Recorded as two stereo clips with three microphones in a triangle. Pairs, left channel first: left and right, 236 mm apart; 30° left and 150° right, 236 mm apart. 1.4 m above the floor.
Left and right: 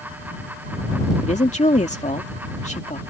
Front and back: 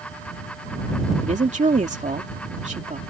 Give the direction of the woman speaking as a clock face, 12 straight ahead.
7 o'clock.